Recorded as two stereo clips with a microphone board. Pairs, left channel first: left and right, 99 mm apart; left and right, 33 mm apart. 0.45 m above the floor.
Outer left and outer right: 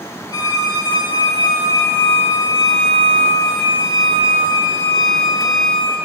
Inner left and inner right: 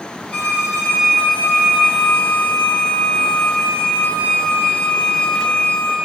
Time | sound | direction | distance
0.3 | a violin | 40° left (ahead or behind) | 4.5 m